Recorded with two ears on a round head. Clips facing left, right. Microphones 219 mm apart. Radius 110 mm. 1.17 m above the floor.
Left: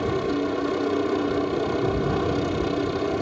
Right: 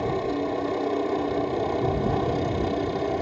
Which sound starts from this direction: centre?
A helicopter, at 0.0 s.